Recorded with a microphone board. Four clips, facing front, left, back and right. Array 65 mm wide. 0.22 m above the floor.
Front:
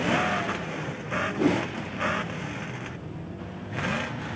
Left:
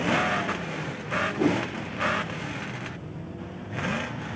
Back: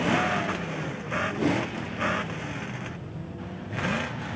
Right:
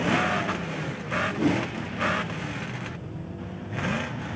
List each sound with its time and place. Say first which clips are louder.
1.4 s a whoosh: even, front 3 dB; 60° left, 3.5 m